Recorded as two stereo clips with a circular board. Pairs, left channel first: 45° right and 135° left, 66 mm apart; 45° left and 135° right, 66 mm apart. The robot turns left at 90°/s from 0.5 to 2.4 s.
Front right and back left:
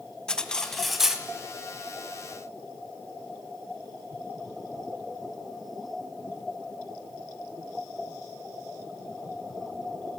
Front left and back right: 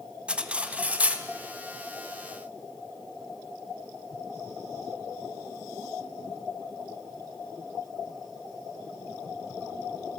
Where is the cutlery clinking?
100° right, 0.7 m; by 1.3 s 170° right, 0.7 m.